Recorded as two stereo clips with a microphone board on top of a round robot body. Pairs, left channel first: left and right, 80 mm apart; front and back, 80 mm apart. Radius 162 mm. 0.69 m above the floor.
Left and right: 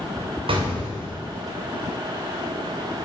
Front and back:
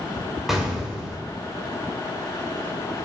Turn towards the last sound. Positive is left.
turn(degrees=-95)